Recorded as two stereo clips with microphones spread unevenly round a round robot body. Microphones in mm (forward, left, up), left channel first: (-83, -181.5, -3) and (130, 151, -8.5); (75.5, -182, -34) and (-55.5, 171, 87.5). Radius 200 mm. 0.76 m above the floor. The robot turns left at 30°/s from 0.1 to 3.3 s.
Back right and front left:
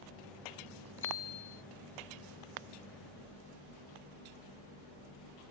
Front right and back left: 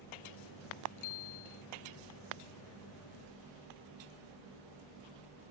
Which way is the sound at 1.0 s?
60° right.